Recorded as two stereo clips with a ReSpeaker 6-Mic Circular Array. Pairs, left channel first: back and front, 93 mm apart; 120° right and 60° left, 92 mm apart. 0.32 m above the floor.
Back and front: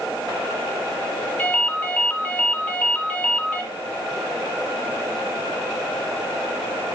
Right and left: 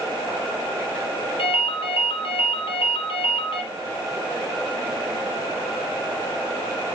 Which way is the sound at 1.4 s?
110° right.